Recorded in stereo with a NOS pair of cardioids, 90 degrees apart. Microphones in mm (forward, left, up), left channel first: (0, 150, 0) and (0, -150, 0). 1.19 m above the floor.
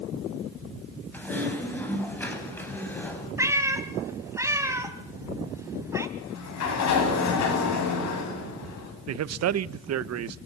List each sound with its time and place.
1.1 s typing on a keyboard: 5° left, 8 m
3.4 s a cat meowing: 10° right, 3 m
6.2 s a sliding door: 65° left, 8.5 m
9.1 s a man speaking: 60° right, 1.0 m